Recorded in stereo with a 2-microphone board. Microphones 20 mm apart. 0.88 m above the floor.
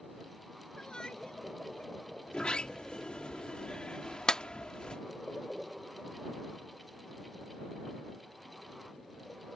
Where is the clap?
40° left (ahead or behind).